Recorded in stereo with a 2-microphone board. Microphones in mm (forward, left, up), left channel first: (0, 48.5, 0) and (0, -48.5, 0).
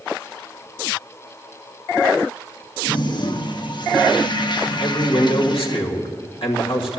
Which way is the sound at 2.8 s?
55° left (ahead or behind).